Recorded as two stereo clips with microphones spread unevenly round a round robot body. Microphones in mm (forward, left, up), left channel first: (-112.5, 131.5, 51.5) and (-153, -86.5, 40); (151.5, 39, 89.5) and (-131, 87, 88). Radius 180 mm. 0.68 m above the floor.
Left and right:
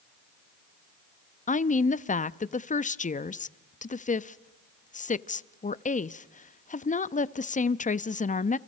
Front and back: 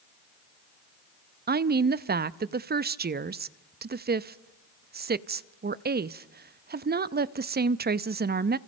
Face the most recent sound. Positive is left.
turn(degrees=125)